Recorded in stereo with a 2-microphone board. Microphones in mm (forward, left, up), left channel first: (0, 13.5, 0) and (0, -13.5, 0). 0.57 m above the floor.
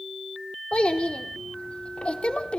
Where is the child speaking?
50° left (ahead or behind), 1.2 m.